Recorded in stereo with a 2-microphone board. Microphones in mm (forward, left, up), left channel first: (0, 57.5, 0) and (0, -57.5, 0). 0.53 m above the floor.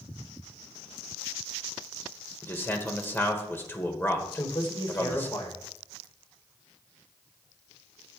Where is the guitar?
I don't hear a guitar.